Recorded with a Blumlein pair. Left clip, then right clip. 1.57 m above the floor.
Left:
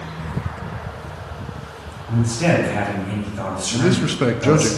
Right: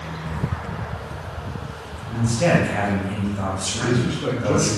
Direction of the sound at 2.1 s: 10° left.